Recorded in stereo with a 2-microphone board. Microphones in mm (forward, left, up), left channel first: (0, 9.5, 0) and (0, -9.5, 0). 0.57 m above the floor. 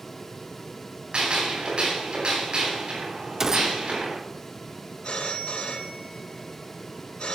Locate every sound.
1.1 s a gunshot: 60° right (ahead or behind), 8.5 m
3.4 s a gunshot: 25° right (ahead or behind), 0.6 m
5.0 s a phone ringing: 80° left, 3.5 m